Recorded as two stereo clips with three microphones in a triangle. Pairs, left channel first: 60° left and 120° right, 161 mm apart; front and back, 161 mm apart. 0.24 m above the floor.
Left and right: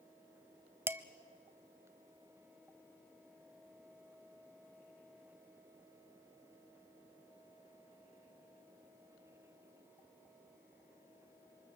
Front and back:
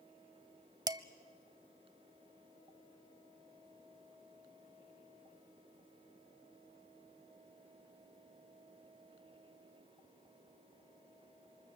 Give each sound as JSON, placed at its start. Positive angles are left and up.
{"t": 0.9, "sound": "dishes clattering", "azimuth_deg": -175, "distance_m": 0.7}